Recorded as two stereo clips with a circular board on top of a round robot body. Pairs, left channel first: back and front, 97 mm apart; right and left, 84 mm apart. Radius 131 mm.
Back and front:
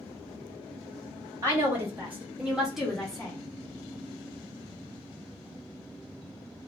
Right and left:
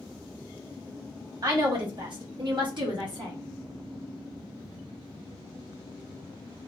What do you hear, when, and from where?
1.4 s a woman speaking: 60° left, 1.8 m; by 3.4 s 100° left, 1.6 m